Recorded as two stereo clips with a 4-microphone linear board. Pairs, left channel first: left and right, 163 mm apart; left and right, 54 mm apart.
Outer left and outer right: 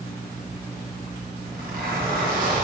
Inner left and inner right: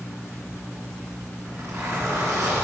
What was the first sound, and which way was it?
A zipper, 70° right (ahead or behind).